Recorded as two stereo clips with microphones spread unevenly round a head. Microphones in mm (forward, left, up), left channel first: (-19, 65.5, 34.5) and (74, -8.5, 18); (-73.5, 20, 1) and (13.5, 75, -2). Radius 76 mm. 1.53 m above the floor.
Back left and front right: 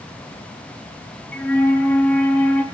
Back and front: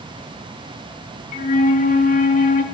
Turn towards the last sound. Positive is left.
turn(degrees=-135)